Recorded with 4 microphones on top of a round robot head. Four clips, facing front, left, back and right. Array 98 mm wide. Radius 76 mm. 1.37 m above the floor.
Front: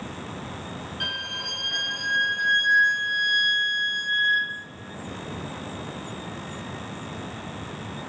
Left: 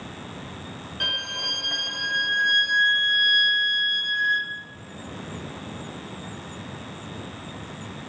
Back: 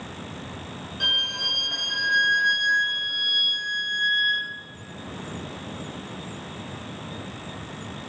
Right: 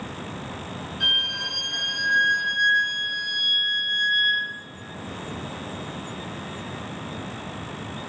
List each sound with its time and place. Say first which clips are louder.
1.0 s a violin: even, back 5 dB; 110° left, 0.7 m